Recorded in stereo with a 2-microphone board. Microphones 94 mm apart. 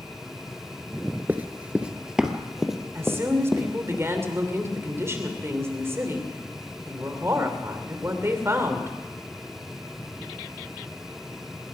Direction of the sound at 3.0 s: 30° right (ahead or behind).